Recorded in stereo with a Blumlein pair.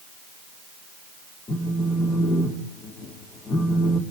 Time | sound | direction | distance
1.5 | a phone buzzing | 20° left | 3.5 m